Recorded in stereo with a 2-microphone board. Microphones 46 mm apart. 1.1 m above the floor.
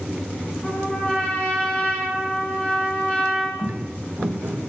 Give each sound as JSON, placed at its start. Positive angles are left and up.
{"t": 0.6, "sound": "a trumpet", "side_deg": 20, "distance_m": 3.5}
{"t": 3.6, "sound": "footsteps", "side_deg": -50, "distance_m": 2.0}